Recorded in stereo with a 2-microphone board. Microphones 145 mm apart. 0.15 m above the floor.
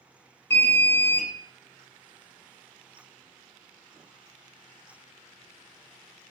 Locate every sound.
0.5 s an alarm: 15° left (ahead or behind), 1.2 m